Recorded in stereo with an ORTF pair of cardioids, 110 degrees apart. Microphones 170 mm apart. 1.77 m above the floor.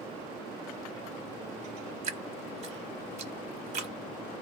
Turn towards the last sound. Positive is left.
turn(degrees=-45)